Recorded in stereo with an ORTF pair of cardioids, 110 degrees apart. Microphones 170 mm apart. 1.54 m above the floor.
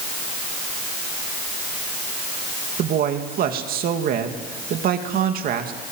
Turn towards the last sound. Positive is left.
turn(degrees=-60)